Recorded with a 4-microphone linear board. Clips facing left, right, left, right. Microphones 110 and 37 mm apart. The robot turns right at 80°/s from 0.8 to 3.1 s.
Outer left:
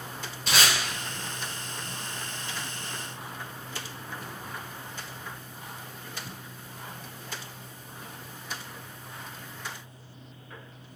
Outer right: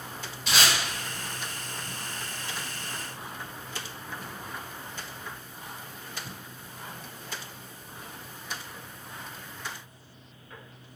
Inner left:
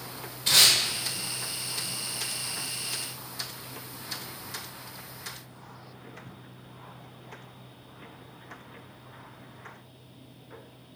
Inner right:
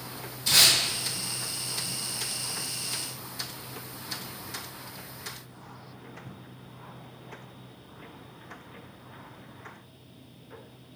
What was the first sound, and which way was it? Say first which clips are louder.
Tape being pulled: even, even; 40° left (ahead or behind).